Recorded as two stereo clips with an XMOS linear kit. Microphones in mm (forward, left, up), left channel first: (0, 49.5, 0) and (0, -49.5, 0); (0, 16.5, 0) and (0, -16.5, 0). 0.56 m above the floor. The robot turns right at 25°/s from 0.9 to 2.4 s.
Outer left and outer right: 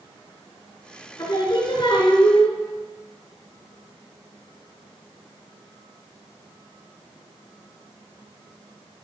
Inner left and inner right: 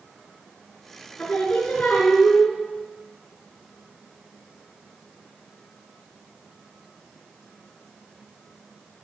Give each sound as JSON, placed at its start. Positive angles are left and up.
{"t": 1.2, "sound": "singing", "azimuth_deg": 35, "distance_m": 5.0}